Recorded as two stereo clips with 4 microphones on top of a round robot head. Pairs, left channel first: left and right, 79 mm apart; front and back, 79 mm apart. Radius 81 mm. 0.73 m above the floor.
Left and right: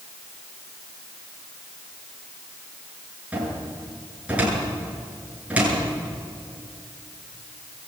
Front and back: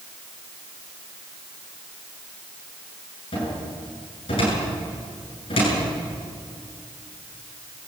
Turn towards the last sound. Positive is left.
turn(degrees=-20)